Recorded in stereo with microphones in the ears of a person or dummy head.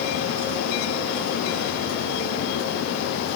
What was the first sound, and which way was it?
Only background noise.